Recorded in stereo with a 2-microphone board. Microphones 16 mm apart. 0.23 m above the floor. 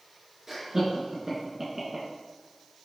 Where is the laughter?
30° right (ahead or behind), 3.5 m; by 2.1 s 25° right (ahead or behind), 2.5 m.